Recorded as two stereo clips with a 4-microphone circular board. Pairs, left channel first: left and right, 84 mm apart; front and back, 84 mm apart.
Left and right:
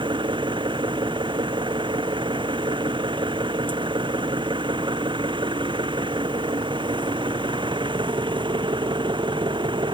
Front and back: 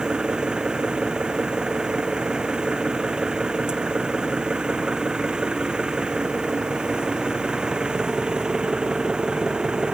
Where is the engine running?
100° right.